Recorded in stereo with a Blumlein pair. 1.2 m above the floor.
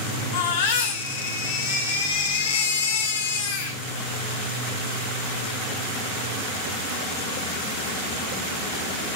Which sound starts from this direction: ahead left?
A baby crying, at 0.3 s.